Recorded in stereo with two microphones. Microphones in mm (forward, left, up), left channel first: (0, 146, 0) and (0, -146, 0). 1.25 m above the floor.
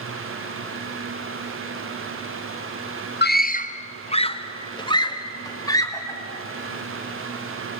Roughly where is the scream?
Left.